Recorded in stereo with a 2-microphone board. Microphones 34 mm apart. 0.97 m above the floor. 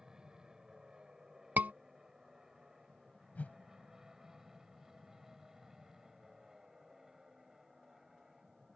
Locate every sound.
0.0 s an aircraft: 15° right (ahead or behind); by 8.8 s 10° right (ahead or behind)
1.6 s a scream: 55° right (ahead or behind)
3.4 s a whoosh: 50° left (ahead or behind)